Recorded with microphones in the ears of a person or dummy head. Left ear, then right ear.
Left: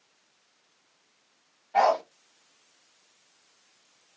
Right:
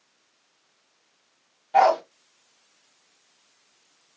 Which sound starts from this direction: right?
A dog barking, at 1.7 s.